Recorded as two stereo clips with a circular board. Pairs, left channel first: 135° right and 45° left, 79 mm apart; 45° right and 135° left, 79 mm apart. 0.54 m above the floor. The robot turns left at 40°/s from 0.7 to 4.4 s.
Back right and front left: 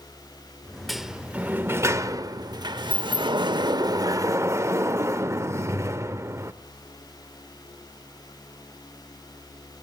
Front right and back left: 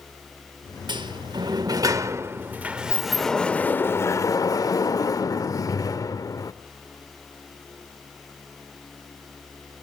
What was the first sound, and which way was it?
A sliding door, 135° left.